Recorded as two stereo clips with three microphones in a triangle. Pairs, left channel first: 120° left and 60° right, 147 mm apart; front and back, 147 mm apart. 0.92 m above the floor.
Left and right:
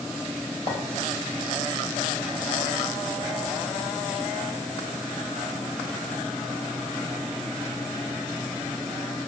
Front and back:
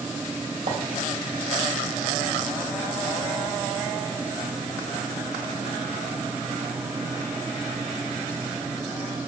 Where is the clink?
170° left, 2.5 m.